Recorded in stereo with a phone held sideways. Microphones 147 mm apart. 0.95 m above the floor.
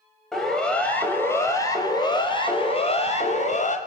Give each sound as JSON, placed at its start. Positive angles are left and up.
{"t": 0.3, "sound": "a siren", "side_deg": 0, "distance_m": 5.5}